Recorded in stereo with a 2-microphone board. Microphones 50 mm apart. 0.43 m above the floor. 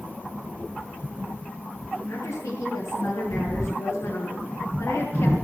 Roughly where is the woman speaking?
Left.